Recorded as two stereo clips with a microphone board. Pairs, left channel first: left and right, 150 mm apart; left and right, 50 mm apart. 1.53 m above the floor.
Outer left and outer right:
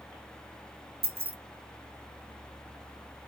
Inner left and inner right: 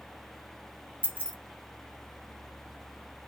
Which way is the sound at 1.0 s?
40° right (ahead or behind).